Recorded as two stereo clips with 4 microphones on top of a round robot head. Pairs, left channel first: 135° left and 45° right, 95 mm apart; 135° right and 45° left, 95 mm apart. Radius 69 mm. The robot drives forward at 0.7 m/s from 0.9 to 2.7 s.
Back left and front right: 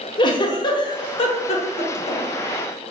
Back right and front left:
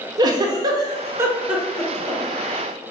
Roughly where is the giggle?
Left.